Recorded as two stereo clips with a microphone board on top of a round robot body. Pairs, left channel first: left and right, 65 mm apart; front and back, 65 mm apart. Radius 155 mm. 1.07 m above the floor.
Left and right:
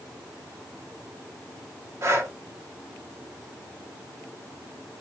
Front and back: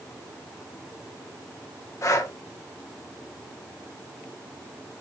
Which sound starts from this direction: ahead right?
Breathing, at 2.0 s.